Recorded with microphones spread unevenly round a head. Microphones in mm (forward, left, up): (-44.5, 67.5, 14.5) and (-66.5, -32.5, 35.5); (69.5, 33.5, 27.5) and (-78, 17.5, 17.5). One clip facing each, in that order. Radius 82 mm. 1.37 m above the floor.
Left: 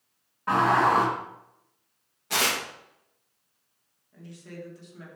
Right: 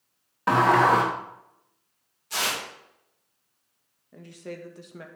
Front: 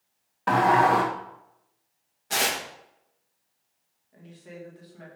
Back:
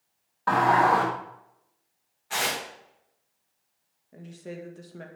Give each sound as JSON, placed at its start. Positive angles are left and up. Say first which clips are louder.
{"t": 0.5, "sound": "a sliding door", "louder": "right 2 dB, front 1 dB", "azimuth_deg": -65, "distance_m": 1.8}
{"t": 2.3, "sound": "tearing paper", "louder": "left 3 dB, front 2 dB", "azimuth_deg": 55, "distance_m": 2.0}
{"t": 4.1, "sound": "a woman speaking", "louder": "right 4 dB, back 5 dB", "azimuth_deg": -130, "distance_m": 2.0}